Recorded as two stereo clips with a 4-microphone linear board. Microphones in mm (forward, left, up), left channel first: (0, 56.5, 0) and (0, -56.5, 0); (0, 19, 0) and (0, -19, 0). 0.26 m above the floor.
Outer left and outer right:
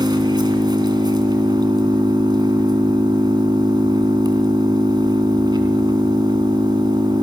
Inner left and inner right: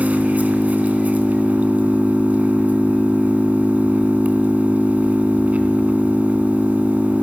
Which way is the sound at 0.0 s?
40° right (ahead or behind).